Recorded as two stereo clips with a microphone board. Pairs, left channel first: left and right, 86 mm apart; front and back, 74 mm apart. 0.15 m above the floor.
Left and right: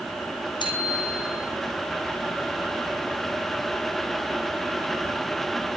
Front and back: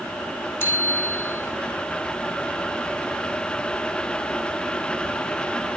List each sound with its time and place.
0.6 s a bicycle bell: 60° left, 4.5 m